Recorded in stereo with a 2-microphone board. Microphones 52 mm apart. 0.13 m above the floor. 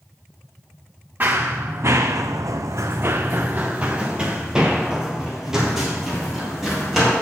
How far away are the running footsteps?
About 1.1 m.